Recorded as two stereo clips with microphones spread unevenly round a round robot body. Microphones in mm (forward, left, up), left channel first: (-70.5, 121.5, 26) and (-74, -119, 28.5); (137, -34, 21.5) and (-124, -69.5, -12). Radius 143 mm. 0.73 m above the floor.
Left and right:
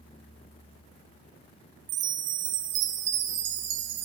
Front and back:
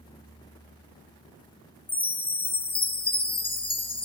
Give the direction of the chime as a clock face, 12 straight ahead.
2 o'clock.